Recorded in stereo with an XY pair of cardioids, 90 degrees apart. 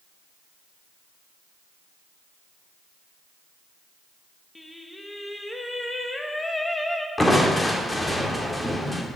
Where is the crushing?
20° left, 1.8 m.